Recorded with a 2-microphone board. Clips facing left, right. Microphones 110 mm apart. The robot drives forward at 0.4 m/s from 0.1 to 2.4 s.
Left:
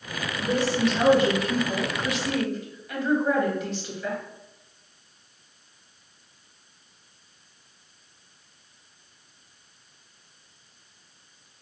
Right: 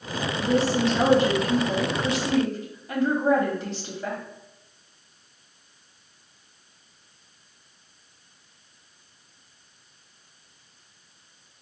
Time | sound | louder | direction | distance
0.4 | a woman speaking | right 1 dB | 35° right (ahead or behind) | 1.2 m